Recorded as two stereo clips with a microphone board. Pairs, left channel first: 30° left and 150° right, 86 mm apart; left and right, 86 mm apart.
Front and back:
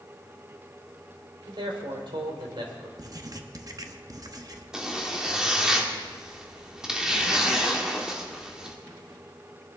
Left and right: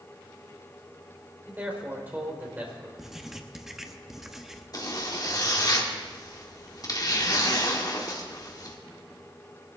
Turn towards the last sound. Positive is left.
turn(degrees=130)